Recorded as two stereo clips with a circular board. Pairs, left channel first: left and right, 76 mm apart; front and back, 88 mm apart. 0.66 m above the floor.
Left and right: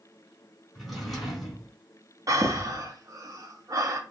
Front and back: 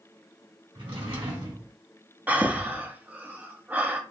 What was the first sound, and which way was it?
A drawer, straight behind.